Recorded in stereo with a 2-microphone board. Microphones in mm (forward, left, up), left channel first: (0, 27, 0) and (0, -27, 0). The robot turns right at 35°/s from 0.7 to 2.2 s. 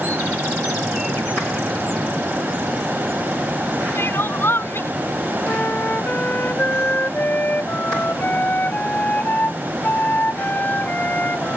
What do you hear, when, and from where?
4.0 s crying: 50° left (ahead or behind)
5.5 s a flute: 35° left (ahead or behind)